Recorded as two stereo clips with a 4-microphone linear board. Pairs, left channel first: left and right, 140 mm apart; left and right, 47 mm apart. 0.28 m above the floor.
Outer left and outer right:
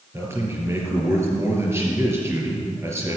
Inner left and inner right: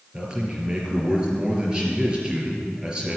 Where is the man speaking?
20° right (ahead or behind), 4.5 m.